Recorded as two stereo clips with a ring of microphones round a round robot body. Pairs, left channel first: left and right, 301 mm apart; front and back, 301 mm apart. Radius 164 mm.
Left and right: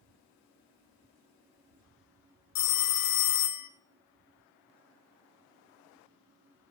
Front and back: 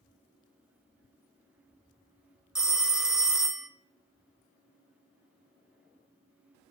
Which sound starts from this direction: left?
A phone ringing, at 2.5 s.